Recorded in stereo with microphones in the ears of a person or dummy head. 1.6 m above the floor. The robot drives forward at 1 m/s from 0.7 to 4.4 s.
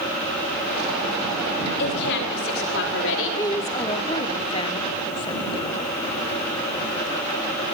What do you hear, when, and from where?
1.8 s a woman speaking: 65° left (ahead or behind), 6.5 m; by 3.4 s 80° left, 6 m
3.2 s a woman speaking: 15° left (ahead or behind), 2.5 m; by 5.9 s 30° left (ahead or behind), 1.4 m